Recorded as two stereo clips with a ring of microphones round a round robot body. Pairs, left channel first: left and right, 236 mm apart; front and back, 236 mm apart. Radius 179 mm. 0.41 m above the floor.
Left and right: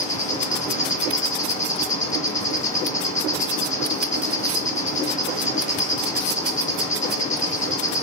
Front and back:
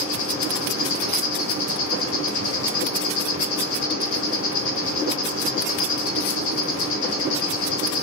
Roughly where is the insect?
Ahead left.